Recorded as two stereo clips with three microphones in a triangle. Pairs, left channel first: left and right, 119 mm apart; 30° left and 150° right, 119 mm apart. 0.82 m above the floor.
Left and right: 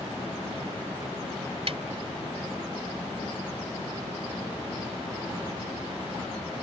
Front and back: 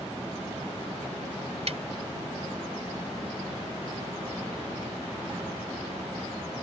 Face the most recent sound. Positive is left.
turn(degrees=-125)